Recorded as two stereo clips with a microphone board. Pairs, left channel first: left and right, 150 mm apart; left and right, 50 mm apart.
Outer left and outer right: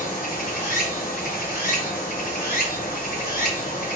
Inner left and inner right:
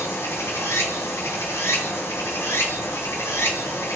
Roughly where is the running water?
Left.